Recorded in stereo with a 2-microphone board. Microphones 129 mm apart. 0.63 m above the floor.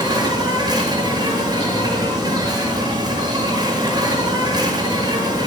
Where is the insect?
30° right (ahead or behind), 8.5 m.